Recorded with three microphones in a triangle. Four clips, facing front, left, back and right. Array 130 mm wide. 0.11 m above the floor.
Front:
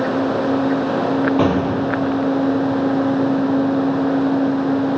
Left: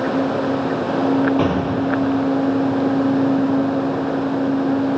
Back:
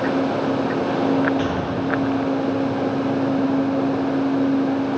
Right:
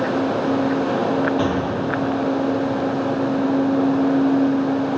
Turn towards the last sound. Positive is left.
turn(degrees=25)